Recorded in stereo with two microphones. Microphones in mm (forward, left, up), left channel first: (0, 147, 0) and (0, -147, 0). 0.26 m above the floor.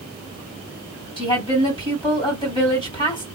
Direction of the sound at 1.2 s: 15° left (ahead or behind).